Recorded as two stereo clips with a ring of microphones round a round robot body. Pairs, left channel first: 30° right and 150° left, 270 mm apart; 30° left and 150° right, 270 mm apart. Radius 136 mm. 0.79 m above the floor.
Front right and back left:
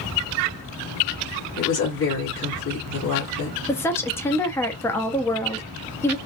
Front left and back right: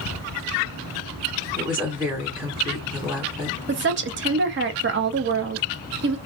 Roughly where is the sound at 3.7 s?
Right.